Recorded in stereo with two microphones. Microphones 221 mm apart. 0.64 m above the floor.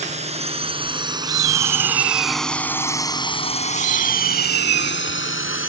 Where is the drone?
30° right (ahead or behind); by 5.7 s 65° left (ahead or behind).